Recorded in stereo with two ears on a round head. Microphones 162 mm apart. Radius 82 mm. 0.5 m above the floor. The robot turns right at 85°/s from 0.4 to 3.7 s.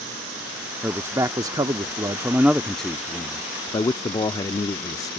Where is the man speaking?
5° right (ahead or behind); by 5.2 s 20° left (ahead or behind).